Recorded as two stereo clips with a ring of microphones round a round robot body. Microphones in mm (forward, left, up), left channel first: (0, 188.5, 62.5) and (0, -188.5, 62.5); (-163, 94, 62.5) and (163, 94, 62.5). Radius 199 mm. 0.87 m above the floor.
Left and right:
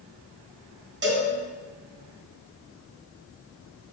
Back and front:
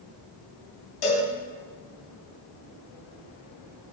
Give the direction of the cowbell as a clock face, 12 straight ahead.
5 o'clock.